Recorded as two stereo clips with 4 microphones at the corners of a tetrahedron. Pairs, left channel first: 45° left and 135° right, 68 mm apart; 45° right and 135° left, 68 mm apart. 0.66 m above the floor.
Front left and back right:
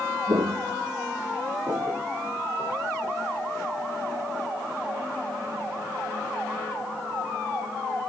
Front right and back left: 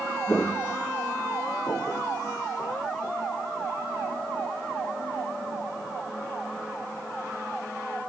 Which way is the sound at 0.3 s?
115° right.